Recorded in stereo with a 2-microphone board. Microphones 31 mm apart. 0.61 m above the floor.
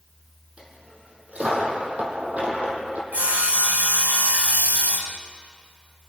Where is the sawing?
60° right (ahead or behind), 1.5 m.